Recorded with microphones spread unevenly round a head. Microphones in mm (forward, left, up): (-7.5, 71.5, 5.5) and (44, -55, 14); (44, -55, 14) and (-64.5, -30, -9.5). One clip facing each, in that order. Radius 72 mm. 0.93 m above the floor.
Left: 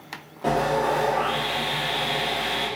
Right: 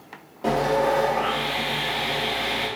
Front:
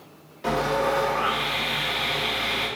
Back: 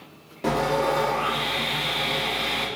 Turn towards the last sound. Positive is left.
turn(degrees=-155)